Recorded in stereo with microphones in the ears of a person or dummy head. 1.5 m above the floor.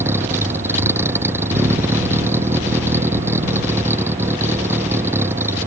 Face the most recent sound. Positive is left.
turn(degrees=-10)  # may be behind; listen again after turning